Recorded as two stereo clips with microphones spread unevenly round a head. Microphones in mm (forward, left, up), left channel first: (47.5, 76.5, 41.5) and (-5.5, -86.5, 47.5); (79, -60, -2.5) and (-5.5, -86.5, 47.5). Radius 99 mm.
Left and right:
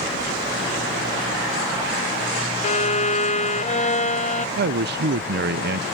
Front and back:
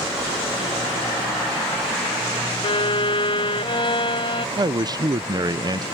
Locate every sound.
2.6 s a violin: 25° left
4.6 s a man speaking: 100° right